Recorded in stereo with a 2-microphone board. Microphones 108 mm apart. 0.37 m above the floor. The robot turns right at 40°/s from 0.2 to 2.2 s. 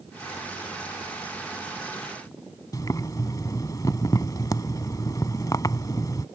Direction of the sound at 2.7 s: 35° left (ahead or behind).